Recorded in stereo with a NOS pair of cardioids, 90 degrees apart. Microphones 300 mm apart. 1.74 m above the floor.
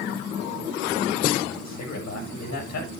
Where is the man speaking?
65° left, 7.5 m.